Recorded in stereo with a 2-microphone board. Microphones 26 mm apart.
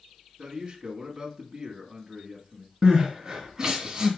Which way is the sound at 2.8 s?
25° right (ahead or behind).